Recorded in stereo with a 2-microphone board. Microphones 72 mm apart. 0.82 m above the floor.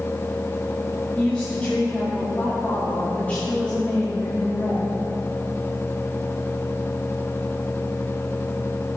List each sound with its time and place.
1.1 s a woman speaking: 20° left (ahead or behind), 1.8 m